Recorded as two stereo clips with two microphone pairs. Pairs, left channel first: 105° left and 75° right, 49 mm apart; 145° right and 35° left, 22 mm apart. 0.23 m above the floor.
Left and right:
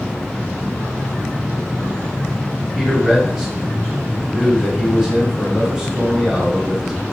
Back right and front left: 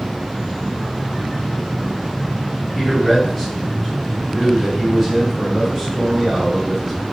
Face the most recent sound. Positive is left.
turn(degrees=-95)